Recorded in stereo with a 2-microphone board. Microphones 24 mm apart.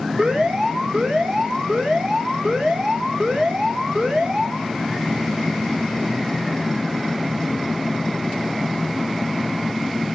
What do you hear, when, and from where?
0.2 s an alarm: 50° right (ahead or behind), 2.5 m